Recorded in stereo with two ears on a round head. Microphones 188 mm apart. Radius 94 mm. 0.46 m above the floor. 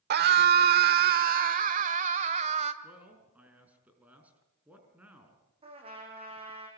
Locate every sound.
0.1 s a scream: 50° right (ahead or behind), 1.2 m; by 2.7 s 35° right (ahead or behind), 2.0 m
2.8 s a man speaking: 5° right (ahead or behind), 5.5 m
5.6 s a trumpet: 30° right (ahead or behind), 6.5 m